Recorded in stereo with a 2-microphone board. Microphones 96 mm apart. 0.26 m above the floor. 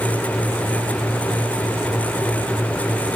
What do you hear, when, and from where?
Only background noise.